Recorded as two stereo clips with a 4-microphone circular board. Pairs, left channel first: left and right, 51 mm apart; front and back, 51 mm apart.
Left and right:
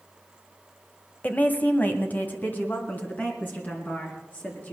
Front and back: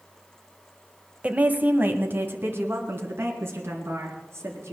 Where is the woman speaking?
130° left, 1.1 m; by 4.7 s 145° left, 4 m.